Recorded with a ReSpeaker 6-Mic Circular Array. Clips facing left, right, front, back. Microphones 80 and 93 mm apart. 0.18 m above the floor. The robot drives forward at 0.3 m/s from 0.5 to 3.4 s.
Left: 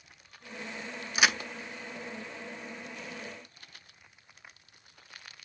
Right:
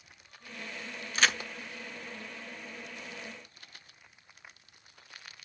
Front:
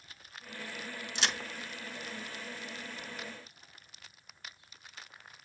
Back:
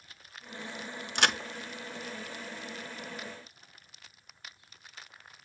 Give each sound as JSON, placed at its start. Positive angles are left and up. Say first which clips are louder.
{"t": 1.1, "sound": "a crack", "louder": "left 1 dB, back 7 dB", "azimuth_deg": 165, "distance_m": 0.5}